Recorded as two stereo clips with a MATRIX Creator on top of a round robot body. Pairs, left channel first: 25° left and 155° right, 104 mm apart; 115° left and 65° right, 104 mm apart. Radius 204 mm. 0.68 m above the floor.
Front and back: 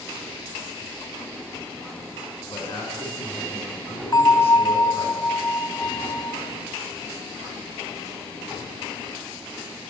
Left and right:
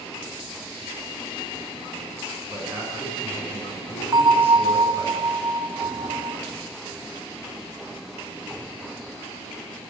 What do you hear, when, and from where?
2.5 s a man speaking: 5° left, 9.5 m
4.1 s a bell: 20° right, 3 m